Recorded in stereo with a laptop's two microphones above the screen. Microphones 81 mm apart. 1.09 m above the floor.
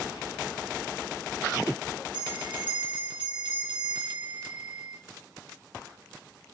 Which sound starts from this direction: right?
A bell, at 2.1 s.